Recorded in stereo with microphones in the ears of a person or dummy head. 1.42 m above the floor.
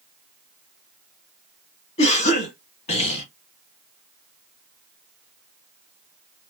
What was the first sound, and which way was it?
A cough, 35° left (ahead or behind).